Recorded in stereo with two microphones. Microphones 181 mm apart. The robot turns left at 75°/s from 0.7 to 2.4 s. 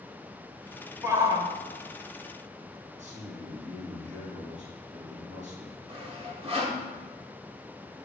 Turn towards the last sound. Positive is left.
turn(degrees=-35)  # may be behind; listen again after turning